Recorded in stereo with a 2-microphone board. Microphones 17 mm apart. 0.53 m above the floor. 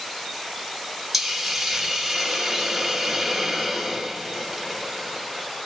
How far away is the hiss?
About 0.9 m.